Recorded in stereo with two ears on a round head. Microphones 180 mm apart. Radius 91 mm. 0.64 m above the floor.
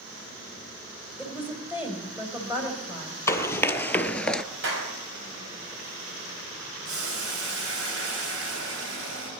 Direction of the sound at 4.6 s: 70° right (ahead or behind).